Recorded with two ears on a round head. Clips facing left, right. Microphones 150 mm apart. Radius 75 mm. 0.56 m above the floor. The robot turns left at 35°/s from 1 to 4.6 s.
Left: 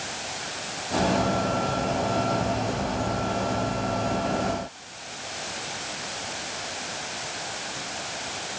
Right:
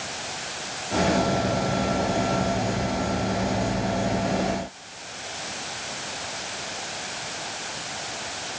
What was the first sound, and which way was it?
Only background noise.